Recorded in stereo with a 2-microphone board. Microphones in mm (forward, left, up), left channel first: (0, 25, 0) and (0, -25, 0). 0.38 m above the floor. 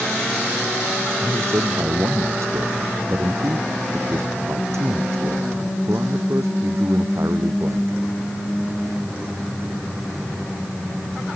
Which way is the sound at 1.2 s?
70° right (ahead or behind).